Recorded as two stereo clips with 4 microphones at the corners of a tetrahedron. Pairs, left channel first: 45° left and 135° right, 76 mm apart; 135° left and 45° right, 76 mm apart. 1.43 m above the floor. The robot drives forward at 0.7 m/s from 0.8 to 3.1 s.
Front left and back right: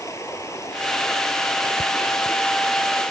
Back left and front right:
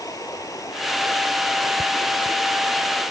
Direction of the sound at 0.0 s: 95° left.